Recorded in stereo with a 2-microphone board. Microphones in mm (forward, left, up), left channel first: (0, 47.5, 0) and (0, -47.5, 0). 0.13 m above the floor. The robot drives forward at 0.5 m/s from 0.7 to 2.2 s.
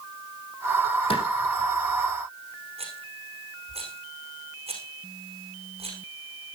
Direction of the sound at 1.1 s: 65° left (ahead or behind).